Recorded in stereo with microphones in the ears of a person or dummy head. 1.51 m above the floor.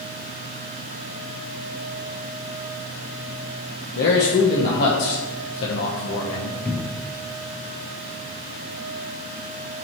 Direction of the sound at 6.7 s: 5° left (ahead or behind).